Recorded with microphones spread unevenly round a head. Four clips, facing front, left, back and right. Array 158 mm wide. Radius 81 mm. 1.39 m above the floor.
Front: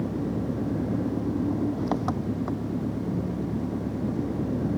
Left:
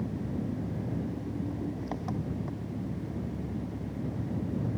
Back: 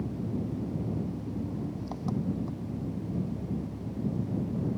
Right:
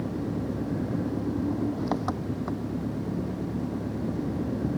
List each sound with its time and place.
0.0 s an engine running: 30° right